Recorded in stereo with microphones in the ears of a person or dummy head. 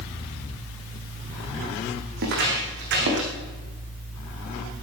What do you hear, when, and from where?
2.2 s footsteps: 60° right (ahead or behind), 7 m